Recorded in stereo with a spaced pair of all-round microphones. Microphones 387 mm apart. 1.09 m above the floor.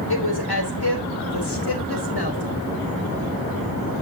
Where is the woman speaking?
70° left (ahead or behind), 3.5 m; by 2.6 s 85° left, 4 m.